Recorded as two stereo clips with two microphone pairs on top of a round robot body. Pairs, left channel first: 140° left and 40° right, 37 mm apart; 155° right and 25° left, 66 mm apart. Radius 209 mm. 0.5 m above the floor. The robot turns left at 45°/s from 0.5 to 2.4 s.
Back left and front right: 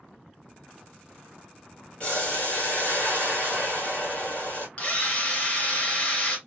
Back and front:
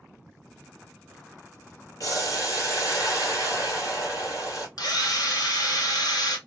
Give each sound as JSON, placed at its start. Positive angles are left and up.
{"t": 2.0, "sound": "boiling", "azimuth_deg": -165, "distance_m": 2.0}
{"t": 4.8, "sound": "a drill", "azimuth_deg": -165, "distance_m": 1.7}